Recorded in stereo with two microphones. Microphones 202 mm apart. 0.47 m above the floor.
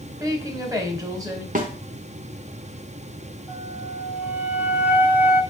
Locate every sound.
0.2 s a woman speaking: 20° right (ahead or behind), 2 m
1.6 s a snare drum: 45° right (ahead or behind), 1.3 m
3.5 s a flute: 10° right (ahead or behind), 1.0 m